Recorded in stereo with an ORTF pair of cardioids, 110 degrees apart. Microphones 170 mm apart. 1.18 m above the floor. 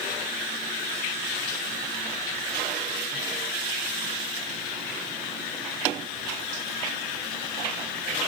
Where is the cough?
No cough in this recording.